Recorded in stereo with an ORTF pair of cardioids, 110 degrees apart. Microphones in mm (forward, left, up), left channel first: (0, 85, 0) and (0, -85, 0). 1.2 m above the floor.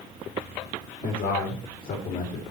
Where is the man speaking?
60° left, 2.5 m; by 2.4 s 45° left, 2.5 m.